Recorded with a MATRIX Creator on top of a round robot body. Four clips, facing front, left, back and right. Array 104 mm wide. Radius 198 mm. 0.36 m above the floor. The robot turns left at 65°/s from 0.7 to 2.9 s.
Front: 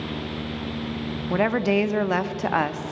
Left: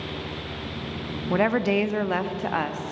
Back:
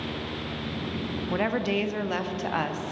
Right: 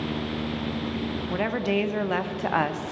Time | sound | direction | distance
1.3 | a woman speaking | 60° left | 0.8 m